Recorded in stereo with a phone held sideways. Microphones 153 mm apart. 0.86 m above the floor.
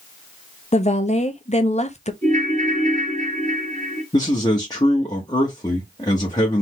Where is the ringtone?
55° right (ahead or behind), 2.5 m.